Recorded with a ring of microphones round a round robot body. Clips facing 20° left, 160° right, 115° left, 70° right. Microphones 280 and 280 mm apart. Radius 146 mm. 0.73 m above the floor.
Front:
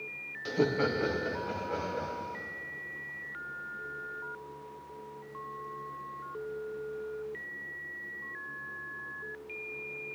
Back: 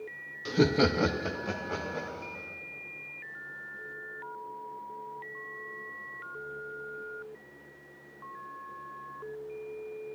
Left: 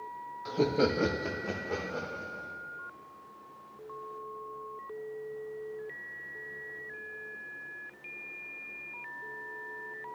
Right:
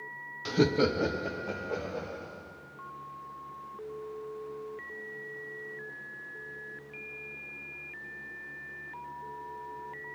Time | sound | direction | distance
0.5 | laughter | 80° right | 0.6 m